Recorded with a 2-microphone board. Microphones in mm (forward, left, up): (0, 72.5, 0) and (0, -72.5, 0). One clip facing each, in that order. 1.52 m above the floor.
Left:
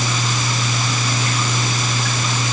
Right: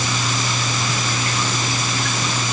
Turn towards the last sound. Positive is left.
No sound to turn to.